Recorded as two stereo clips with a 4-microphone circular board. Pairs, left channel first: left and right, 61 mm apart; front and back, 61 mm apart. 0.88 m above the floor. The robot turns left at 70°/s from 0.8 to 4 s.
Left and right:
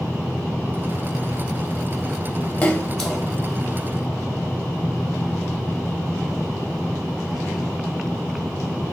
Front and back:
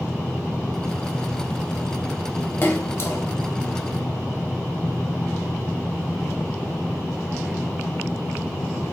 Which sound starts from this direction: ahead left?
A splash, at 2.6 s.